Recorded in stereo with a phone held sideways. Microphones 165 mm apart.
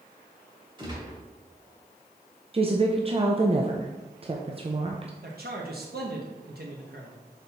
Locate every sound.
0.8 s a gunshot: 30° right (ahead or behind), 1.8 m
2.5 s a woman speaking: 35° right (ahead or behind), 0.6 m
5.2 s a man speaking: 70° right (ahead or behind), 1.0 m